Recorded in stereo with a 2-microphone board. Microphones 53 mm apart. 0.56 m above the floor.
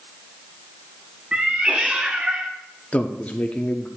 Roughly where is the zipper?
No zipper in this recording.